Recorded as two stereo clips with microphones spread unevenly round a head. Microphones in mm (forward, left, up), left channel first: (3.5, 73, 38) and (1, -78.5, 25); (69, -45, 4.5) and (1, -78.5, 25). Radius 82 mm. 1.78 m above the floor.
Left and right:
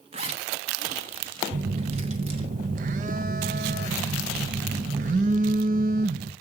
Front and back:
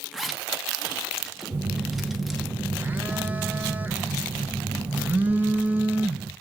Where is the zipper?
100° right, 1.2 m.